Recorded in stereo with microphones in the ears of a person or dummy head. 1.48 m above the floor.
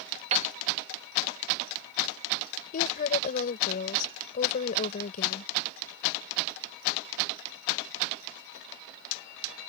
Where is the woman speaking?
50° left (ahead or behind).